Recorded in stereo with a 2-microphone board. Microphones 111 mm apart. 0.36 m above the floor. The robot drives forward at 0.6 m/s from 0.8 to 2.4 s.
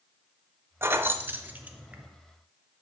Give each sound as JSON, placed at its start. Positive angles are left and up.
{"t": 0.8, "sound": "keys jangling", "side_deg": -20, "distance_m": 0.5}